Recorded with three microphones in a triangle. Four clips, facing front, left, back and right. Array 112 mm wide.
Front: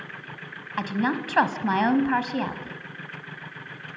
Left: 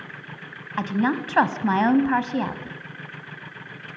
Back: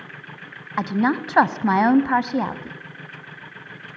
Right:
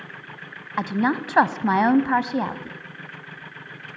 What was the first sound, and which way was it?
A woman speaking, 160° right.